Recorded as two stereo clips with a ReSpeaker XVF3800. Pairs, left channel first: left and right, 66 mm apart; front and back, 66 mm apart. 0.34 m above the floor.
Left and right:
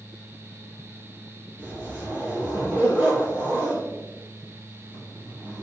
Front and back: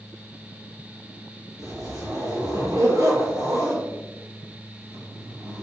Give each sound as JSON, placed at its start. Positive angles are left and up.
{"t": 1.6, "sound": "a zipper", "azimuth_deg": -150, "distance_m": 1.6}